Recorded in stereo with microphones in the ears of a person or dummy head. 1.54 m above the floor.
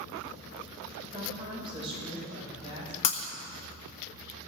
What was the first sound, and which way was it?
A woman speaking, 30° right (ahead or behind).